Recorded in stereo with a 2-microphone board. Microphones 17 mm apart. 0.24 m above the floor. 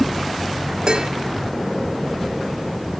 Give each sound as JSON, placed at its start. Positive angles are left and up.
{"t": 0.9, "sound": "dishes clattering", "side_deg": -60}